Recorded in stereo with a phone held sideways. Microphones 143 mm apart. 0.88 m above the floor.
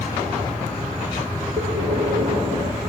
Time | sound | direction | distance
1.6 | breathing | 25° right (ahead or behind) | 7 m